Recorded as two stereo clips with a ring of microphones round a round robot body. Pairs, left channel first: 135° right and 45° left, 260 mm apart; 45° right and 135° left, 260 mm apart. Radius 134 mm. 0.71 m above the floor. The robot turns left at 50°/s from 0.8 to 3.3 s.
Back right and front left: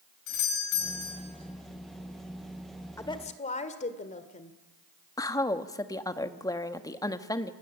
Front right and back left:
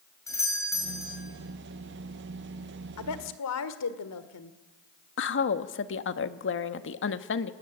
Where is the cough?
No cough in this recording.